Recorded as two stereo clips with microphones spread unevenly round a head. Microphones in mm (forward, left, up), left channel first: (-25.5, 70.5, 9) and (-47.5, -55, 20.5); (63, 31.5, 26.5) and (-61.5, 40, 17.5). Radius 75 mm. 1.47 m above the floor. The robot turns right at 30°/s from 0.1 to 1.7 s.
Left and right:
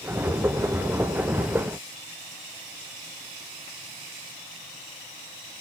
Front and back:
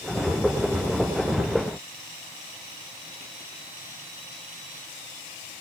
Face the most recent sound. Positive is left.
No sound to turn to.